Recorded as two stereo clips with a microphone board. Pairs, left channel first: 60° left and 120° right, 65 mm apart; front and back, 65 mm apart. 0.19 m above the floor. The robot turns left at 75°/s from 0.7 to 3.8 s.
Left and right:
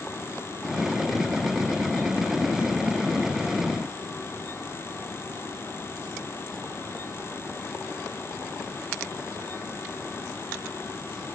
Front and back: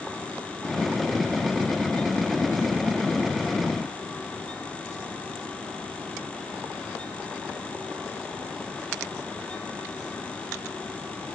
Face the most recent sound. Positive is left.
No sound to turn to.